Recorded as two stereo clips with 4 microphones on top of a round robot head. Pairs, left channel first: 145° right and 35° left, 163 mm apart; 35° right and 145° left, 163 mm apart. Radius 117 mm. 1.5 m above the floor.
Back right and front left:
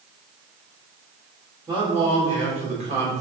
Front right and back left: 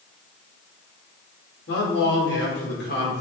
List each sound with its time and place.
1.7 s a man speaking: 30° right, 4.5 m; by 3.2 s 10° right, 4.5 m